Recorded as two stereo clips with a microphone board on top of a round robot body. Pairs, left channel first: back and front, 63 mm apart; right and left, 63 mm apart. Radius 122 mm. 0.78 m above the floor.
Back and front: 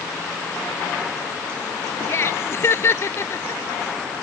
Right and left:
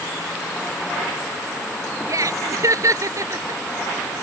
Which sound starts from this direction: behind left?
Laughter, at 2.1 s.